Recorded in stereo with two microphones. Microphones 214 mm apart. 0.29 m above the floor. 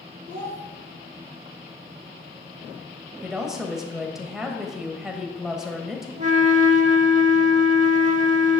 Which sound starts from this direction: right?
A flute, at 6.2 s.